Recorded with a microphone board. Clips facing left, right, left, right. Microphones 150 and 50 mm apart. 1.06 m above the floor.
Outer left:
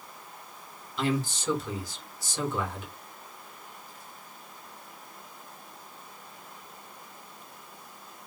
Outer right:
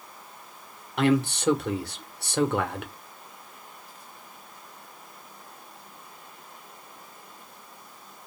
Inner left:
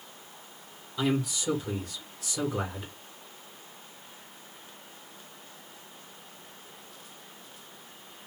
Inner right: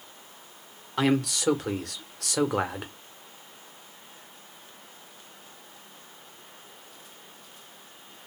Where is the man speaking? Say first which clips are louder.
Outer right 6 dB, inner right 4 dB; 70° right (ahead or behind), 0.8 m.